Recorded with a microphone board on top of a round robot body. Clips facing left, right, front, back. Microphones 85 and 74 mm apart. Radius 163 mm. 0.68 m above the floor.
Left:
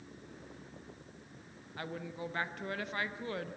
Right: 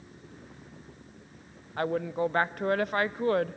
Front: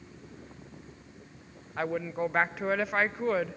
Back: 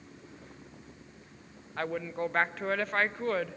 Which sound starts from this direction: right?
A woman speaking, at 1.8 s.